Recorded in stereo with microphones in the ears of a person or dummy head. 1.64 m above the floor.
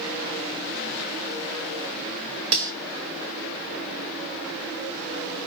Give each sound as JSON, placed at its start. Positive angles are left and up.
{"t": 2.5, "sound": "cutlery clinking", "side_deg": -50, "distance_m": 1.4}